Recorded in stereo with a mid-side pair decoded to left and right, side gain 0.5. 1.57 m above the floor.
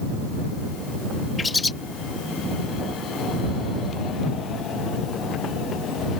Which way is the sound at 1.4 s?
20° left.